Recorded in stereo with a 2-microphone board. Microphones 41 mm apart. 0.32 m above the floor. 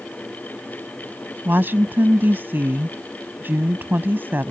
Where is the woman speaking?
60° right (ahead or behind).